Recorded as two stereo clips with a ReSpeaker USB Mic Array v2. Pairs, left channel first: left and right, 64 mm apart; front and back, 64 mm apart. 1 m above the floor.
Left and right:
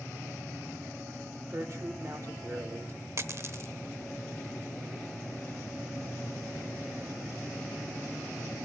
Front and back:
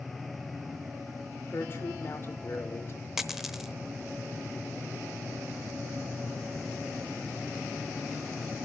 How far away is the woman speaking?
About 2.5 m.